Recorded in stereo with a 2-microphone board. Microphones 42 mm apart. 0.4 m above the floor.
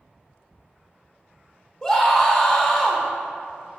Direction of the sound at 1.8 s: 20° left (ahead or behind).